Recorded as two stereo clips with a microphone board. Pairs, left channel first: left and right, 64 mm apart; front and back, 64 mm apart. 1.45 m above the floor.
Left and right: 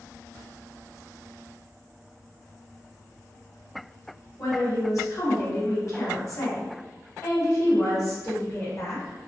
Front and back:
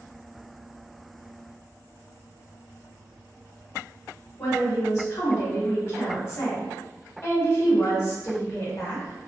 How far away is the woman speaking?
About 0.9 m.